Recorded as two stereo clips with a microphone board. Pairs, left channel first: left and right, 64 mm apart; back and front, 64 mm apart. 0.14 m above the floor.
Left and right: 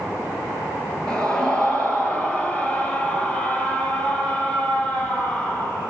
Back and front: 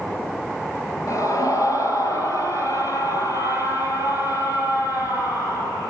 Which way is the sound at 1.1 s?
165° left.